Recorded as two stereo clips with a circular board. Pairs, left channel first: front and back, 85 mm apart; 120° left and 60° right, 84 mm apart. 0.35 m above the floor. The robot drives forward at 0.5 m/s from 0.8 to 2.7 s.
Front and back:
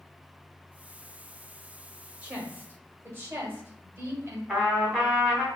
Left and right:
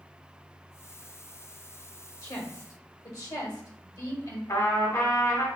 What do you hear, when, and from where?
2.2 s a woman speaking: 120° left, 1.2 m; by 4.4 s 130° left, 1.3 m
4.5 s a trumpet: 115° left, 1.7 m